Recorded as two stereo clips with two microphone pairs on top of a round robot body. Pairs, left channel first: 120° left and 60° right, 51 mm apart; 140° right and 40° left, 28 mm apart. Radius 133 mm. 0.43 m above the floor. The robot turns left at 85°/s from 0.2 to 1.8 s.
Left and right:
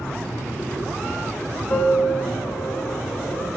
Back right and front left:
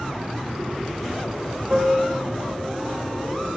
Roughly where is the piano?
Left.